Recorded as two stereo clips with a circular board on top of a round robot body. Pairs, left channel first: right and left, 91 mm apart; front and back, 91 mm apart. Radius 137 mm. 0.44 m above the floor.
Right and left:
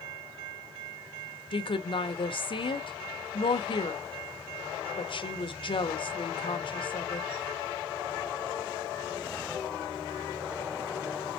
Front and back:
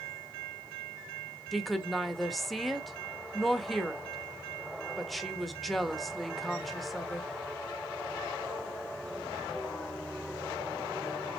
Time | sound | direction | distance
1.5 | a woman speaking | 90° right | 1.4 m